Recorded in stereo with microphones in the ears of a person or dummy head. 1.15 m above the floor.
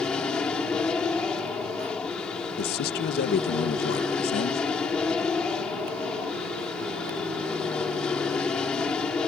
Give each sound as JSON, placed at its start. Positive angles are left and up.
{"t": 0.0, "sound": "an aircraft", "side_deg": 5}
{"t": 2.6, "sound": "a man speaking", "side_deg": 50}